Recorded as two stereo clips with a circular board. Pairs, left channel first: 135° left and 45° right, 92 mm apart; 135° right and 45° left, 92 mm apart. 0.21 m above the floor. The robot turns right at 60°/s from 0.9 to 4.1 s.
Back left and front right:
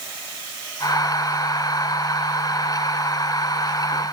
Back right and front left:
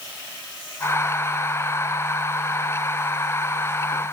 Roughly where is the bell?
I don't hear a bell.